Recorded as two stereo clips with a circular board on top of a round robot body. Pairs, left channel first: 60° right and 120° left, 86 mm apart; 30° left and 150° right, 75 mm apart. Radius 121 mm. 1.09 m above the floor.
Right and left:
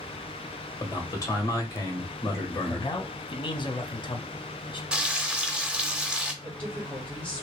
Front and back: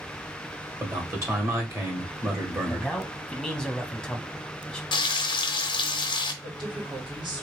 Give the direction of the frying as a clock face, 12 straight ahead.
11 o'clock.